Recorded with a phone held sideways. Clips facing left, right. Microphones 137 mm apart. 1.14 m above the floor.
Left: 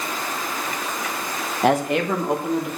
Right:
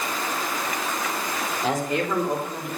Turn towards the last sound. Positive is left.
turn(degrees=70)  # may be behind; listen again after turning